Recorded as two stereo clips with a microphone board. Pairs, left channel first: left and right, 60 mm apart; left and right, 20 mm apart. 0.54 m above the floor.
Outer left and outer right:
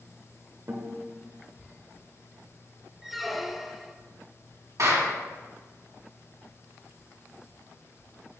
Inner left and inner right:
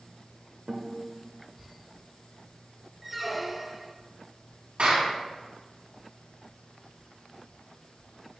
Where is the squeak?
Centre (ahead or behind), 0.6 m.